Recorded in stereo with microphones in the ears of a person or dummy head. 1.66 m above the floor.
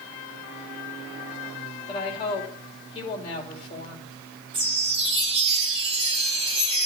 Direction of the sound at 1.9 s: 30° left (ahead or behind).